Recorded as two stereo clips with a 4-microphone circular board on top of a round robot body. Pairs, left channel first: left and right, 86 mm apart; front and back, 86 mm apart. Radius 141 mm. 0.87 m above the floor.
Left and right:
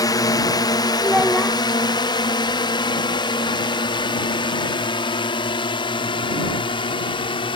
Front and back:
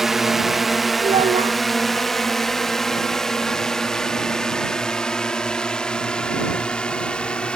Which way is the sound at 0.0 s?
95° left.